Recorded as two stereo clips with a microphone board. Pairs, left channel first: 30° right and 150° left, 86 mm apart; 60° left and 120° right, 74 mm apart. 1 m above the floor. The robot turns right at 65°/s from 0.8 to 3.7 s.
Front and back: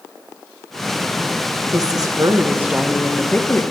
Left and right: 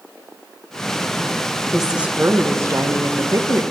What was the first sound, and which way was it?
A woman speaking, 150° left.